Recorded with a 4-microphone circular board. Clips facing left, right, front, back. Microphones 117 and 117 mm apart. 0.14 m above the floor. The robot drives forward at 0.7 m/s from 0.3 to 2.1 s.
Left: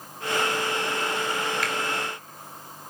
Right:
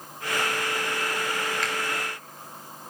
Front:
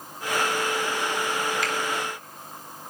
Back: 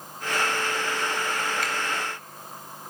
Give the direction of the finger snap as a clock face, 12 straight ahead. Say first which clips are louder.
Left 1 dB, front 2 dB; 6 o'clock.